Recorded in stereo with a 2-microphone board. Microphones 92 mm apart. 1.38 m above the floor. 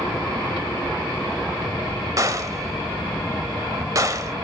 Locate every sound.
2.2 s a gunshot: 40° right (ahead or behind), 1.6 m